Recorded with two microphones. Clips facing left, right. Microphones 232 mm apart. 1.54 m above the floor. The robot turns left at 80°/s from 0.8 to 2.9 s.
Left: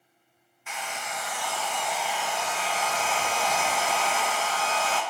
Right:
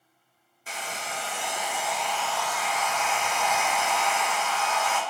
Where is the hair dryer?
90° right, 0.5 m; by 5.0 s 105° left, 0.5 m.